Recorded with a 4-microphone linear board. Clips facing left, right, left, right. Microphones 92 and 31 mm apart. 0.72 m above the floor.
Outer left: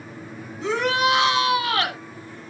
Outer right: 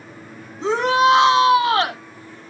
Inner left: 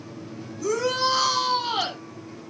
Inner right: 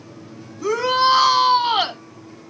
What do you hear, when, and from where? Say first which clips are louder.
0.6 s a shout: outer right 5 dB, inner right 6 dB; 30° right (ahead or behind), 1.1 m